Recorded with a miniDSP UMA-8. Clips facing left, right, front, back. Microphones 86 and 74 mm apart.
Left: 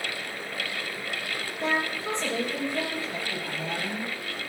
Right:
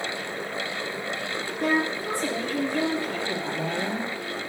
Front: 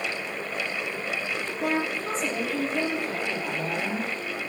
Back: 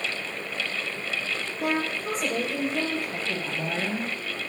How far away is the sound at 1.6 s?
About 6.5 m.